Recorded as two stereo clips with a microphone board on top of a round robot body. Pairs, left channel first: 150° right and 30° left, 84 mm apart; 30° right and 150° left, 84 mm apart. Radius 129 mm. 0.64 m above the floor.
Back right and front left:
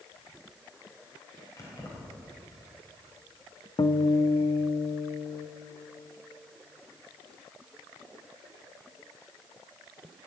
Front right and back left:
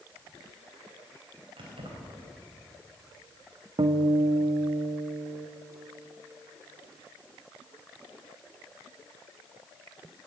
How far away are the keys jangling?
About 3.5 m.